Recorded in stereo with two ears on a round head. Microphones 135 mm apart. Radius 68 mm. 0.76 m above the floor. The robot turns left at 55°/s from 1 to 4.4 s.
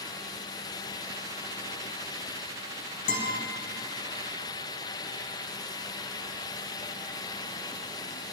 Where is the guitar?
60° left (ahead or behind), 1.7 m; by 3.4 s 75° left (ahead or behind), 1.7 m.